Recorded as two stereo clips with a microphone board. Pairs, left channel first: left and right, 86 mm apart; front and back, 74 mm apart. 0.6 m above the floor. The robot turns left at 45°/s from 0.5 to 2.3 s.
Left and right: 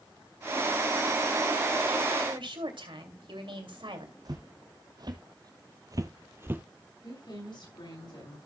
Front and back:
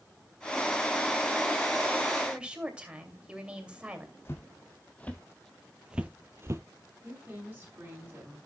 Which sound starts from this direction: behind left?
A woman speaking, at 7.0 s.